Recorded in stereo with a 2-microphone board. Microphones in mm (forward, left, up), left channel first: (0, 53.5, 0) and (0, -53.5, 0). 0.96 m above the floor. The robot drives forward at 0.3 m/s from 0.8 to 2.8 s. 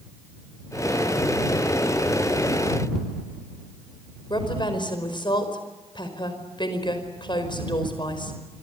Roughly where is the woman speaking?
Left.